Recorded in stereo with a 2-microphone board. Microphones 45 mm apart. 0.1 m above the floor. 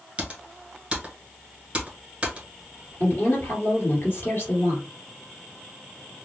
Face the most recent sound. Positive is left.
turn(degrees=40)  # may be behind; listen again after turning